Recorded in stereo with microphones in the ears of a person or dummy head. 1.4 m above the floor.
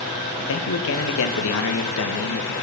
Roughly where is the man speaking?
Left.